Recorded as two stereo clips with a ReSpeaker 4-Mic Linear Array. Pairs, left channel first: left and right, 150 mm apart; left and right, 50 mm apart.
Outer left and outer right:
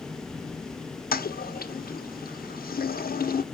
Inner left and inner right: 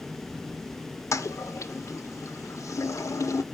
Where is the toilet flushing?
75° left (ahead or behind), 0.6 m.